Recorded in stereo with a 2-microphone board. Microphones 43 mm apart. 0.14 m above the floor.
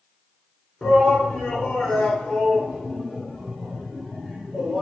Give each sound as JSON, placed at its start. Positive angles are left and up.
{"t": 0.8, "sound": "a shout", "side_deg": 10, "distance_m": 1.7}